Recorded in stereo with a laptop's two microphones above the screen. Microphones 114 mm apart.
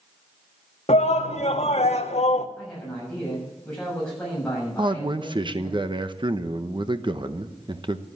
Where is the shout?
70° left (ahead or behind), 1.3 m.